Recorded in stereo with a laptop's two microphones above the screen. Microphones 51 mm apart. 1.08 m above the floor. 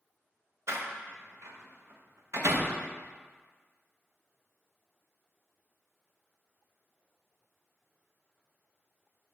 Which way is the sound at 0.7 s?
60° right (ahead or behind).